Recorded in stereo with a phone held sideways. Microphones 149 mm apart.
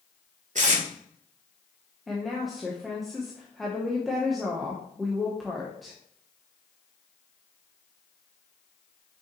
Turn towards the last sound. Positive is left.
turn(degrees=0)  # may be behind; listen again after turning